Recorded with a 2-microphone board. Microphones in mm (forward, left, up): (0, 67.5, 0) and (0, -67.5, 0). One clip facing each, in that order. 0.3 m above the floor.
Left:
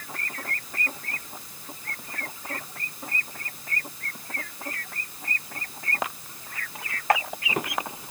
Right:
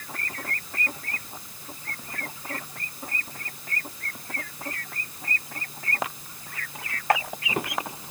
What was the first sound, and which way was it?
Only background noise.